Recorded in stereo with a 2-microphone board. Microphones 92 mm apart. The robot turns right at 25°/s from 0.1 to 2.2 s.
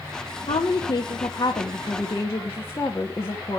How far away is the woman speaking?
About 1.1 m.